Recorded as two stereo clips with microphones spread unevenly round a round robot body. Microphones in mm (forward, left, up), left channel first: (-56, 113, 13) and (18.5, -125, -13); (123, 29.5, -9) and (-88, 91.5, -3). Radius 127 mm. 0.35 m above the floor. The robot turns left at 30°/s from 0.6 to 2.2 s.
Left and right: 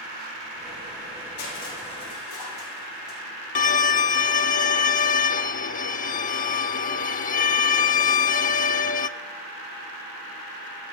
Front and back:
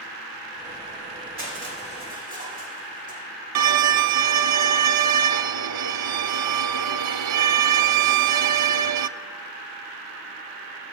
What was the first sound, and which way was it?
Crushing, 135° left.